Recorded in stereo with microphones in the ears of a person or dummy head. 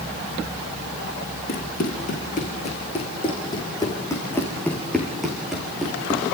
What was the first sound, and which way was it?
Running footsteps, 45° left (ahead or behind).